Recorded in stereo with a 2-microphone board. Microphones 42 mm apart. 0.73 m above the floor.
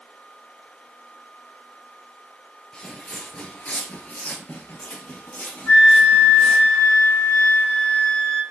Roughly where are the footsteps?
Centre.